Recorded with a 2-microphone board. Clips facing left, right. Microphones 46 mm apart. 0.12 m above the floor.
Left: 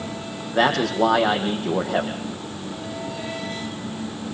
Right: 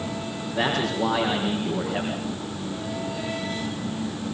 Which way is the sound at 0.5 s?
75° left (ahead or behind).